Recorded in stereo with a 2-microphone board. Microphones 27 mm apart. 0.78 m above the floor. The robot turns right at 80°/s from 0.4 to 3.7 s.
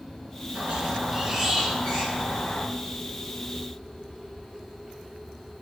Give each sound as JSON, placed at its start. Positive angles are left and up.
{"t": 0.6, "sound": "a squeak", "azimuth_deg": -75, "distance_m": 3.0}